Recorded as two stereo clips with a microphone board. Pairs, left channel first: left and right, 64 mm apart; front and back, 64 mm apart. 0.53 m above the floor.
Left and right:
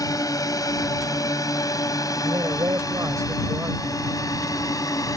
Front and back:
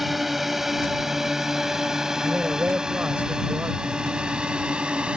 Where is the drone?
95° left; by 5.2 s 105° left.